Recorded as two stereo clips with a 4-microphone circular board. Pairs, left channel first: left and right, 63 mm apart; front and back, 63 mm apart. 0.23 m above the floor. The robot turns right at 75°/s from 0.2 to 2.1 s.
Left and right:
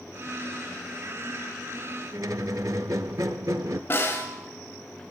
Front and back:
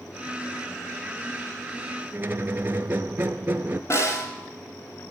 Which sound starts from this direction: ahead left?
A snare drum, at 3.9 s.